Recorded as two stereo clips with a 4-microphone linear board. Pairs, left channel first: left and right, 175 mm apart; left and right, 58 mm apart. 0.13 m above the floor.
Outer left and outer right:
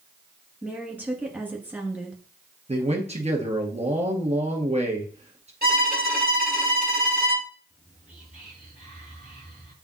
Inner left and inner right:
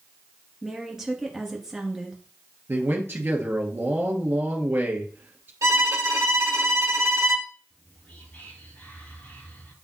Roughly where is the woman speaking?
Centre.